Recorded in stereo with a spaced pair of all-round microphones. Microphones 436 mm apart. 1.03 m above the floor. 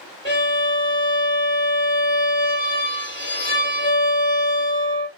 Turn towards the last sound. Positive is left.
turn(degrees=25)  # may be behind; listen again after turning